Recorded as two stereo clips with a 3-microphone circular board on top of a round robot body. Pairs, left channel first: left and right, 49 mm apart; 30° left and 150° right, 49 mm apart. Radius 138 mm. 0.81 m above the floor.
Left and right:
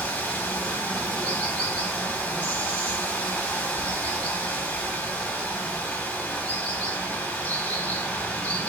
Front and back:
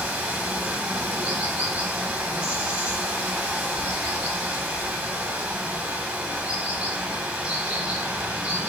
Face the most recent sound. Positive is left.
turn(degrees=155)